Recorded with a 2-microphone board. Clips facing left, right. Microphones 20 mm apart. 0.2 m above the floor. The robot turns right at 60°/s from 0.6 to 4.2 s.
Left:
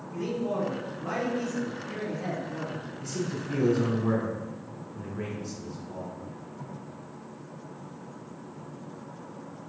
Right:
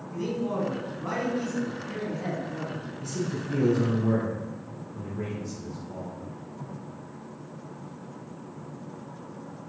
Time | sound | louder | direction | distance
0.1 | a man speaking | right 1 dB | 100° right | 1.8 m
3.0 | a man speaking | right 1 dB | 10° right (ahead or behind) | 1.9 m